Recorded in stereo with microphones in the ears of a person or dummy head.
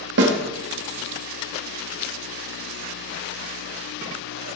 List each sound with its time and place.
0.2 s a snare drum: 65° right (ahead or behind), 2 m